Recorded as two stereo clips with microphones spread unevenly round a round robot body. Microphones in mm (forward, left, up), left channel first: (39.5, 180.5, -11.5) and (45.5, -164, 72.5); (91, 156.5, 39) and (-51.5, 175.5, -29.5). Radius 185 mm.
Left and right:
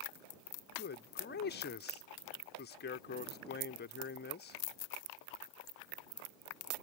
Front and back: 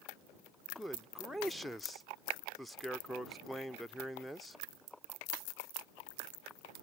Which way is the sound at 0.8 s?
115° left.